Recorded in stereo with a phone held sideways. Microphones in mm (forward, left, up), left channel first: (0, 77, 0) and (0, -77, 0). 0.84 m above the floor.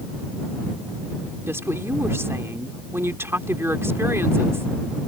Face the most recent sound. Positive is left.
turn(degrees=-15)  # may be behind; listen again after turning